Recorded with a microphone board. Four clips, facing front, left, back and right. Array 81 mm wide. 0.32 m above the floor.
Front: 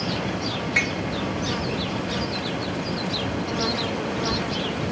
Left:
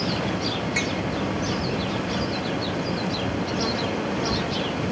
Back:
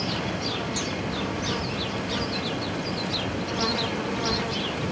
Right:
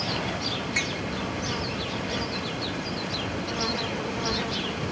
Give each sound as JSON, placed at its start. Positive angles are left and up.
{"t": 0.8, "sound": "tapping", "azimuth_deg": 0}